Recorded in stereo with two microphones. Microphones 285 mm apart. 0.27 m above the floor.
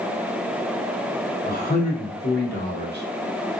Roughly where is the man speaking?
Left.